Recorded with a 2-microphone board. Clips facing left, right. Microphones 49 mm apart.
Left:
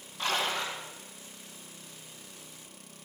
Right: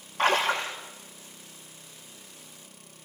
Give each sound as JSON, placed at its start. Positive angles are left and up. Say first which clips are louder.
{"t": 0.2, "sound": "a splash", "louder": "right 7 dB", "side_deg": -50, "distance_m": 8.0}